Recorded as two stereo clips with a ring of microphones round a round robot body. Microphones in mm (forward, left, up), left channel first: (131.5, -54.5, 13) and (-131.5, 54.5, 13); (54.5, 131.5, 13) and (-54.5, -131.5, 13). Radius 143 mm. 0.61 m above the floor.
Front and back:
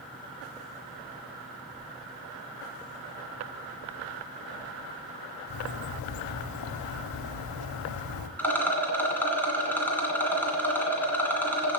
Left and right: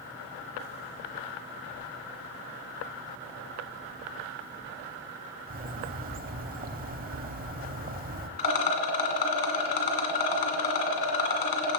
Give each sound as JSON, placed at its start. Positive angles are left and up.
{"t": 5.5, "sound": "a bird", "azimuth_deg": -50, "distance_m": 0.8}
{"t": 8.4, "sound": "a rattle", "azimuth_deg": 60, "distance_m": 2.0}